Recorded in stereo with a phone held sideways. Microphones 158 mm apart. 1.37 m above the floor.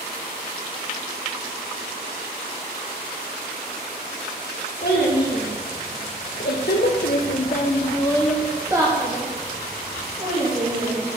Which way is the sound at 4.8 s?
80° left.